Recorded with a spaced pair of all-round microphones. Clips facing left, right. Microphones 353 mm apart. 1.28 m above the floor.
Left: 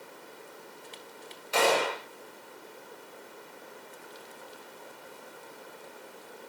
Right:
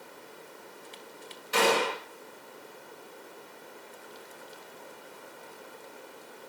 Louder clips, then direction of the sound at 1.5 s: Even; 25° right (ahead or behind).